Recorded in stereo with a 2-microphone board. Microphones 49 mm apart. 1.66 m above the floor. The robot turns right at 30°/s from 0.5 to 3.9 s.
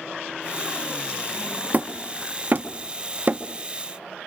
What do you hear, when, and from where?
1.7 s hammering: 35° right (ahead or behind), 1.2 m